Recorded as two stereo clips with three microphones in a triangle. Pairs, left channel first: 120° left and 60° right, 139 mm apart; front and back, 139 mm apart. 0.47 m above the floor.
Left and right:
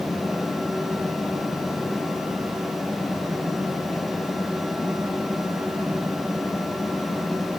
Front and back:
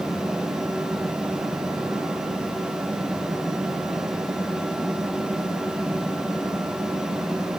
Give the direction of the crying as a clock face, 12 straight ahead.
No crying in this recording.